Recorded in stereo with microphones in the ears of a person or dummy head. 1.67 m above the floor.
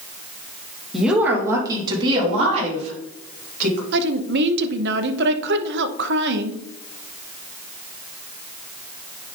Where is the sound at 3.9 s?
65° right (ahead or behind), 0.9 m.